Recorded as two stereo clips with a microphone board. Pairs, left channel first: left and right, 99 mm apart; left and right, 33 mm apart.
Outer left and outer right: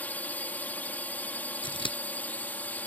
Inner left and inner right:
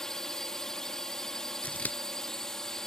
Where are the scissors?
60° left (ahead or behind).